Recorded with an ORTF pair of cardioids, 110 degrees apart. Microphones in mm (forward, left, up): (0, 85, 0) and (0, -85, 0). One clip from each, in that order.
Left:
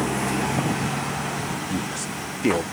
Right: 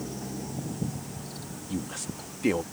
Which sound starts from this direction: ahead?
A woman speaking, at 1.7 s.